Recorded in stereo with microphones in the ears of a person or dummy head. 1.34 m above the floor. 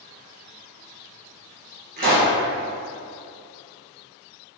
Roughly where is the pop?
Right.